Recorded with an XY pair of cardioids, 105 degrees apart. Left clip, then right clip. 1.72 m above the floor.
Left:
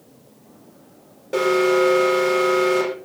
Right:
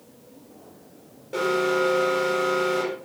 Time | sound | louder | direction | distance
1.3 | an alarm | left 5 dB | 45° left | 6 m